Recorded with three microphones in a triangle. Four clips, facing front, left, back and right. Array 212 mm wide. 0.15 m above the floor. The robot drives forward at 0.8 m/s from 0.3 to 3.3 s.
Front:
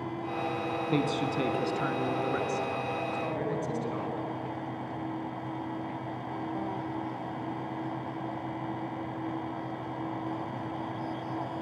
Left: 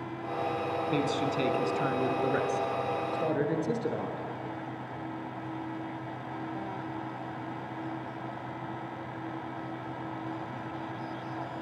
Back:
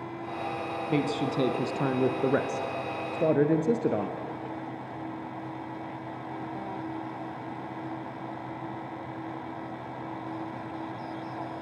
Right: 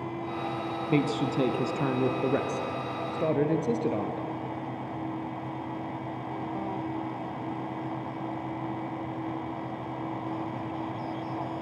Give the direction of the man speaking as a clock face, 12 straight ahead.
3 o'clock.